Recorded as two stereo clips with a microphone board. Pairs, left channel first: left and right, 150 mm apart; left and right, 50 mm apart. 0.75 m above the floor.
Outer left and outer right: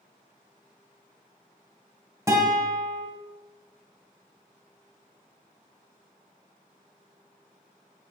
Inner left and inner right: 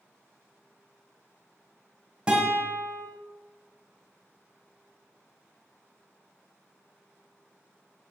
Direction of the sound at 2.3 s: 20° right (ahead or behind).